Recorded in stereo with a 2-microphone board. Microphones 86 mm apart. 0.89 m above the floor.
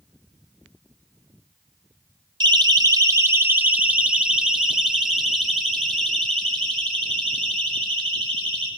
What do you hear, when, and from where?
2.4 s a siren: 55° right (ahead or behind), 2 m; by 8.7 s 10° left (ahead or behind), 10 m